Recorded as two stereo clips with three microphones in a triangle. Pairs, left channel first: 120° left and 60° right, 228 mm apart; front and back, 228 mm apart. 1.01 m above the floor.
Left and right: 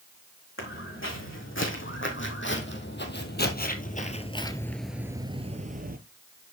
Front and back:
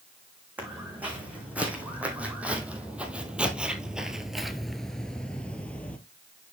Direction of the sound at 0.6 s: 95° left.